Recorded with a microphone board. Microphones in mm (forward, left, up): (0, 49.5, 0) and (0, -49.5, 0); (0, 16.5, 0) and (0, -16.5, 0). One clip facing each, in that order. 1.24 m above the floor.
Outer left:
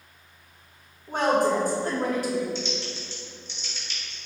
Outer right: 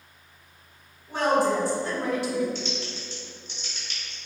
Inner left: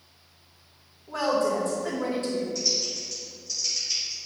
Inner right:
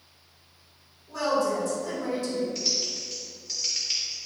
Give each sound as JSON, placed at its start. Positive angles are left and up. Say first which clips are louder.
{"t": 1.1, "sound": "a woman speaking", "louder": "even, inner left 1 dB", "side_deg": 55, "distance_m": 1.7}
{"t": 2.5, "sound": "typing on a keyboard", "louder": "outer left 1 dB, inner left 1 dB", "side_deg": -50, "distance_m": 1.5}